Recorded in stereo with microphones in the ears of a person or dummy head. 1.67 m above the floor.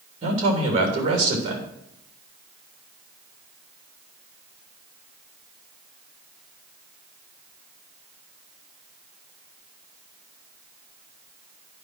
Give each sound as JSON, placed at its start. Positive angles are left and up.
{"t": 0.2, "sound": "a man speaking", "side_deg": -35, "distance_m": 3.0}